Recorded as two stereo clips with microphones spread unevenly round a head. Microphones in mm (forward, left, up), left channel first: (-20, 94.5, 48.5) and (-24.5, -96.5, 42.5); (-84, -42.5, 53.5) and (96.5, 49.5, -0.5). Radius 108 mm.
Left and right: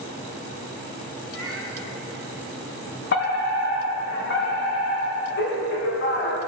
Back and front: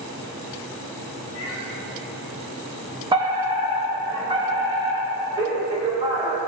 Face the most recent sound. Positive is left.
turn(degrees=80)